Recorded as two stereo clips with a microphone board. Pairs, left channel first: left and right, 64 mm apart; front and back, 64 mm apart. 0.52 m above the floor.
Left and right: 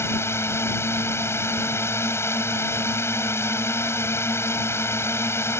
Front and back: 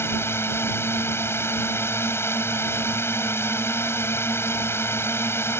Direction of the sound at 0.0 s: 45° left.